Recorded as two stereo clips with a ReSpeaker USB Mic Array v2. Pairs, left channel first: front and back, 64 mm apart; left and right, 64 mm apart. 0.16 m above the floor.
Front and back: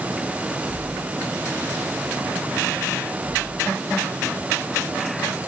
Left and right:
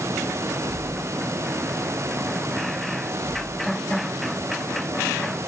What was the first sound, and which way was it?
Only background noise.